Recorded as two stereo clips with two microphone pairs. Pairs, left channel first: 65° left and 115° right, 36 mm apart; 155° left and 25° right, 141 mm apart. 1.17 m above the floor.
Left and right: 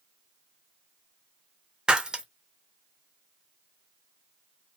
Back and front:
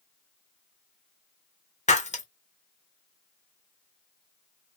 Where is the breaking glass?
Straight behind, 0.8 m.